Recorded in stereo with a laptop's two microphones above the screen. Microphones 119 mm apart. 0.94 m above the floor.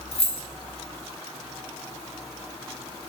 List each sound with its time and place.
0.1 s keys jangling: 55° left (ahead or behind), 0.7 m